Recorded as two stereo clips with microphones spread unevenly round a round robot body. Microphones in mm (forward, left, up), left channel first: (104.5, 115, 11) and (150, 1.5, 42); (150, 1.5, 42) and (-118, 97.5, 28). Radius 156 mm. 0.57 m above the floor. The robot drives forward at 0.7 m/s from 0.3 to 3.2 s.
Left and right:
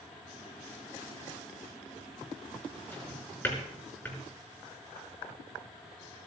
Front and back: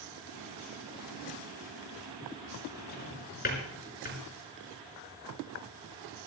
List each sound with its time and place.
2.9 s a drawer: 35° left, 5.5 m; by 4.2 s 40° left, 5.5 m